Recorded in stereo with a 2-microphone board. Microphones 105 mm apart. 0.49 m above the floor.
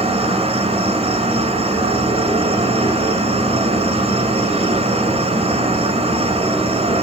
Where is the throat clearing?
I don't hear throat clearing.